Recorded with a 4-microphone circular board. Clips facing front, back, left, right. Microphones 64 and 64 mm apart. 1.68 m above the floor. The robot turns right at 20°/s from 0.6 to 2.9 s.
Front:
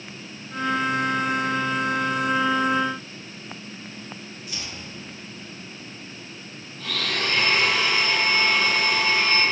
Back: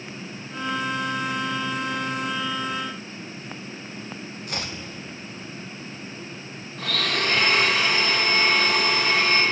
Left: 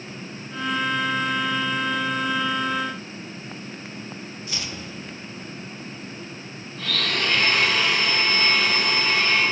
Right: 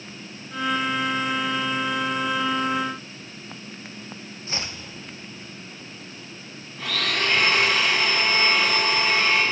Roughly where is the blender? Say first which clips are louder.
Back 2 dB, even; behind.